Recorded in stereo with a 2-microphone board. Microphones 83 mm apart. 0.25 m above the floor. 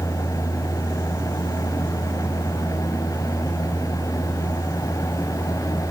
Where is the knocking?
No knocking in this recording.